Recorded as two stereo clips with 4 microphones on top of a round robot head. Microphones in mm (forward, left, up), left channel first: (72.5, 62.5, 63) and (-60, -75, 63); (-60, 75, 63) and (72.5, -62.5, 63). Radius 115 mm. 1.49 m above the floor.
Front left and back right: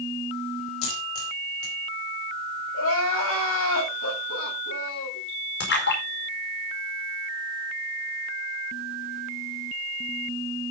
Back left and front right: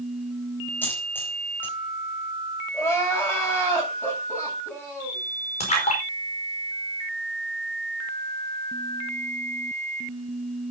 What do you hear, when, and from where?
0.8 s a dropped coin: 55° left, 4 m
2.7 s crying: 55° left, 7.5 m
5.6 s a splash: 75° left, 5 m